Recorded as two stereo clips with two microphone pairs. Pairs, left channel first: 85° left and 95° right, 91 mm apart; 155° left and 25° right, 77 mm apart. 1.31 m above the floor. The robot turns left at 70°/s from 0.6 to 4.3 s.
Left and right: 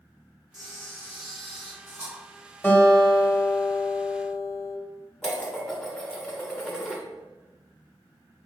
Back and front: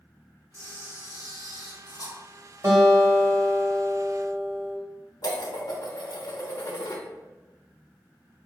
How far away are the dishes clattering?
About 1.0 m.